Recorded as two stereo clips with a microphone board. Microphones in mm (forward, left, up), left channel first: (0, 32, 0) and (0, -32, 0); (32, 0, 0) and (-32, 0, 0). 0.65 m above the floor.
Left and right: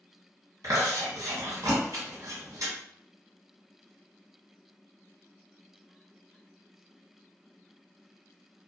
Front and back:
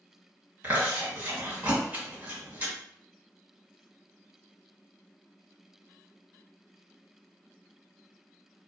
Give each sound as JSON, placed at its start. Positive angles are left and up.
{"t": 0.6, "sound": "chewing", "azimuth_deg": -120, "distance_m": 1.7}